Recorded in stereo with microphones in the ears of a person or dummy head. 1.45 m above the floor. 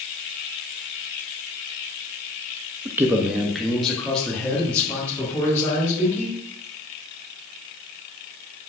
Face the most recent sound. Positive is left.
turn(degrees=15)  # may be behind; listen again after turning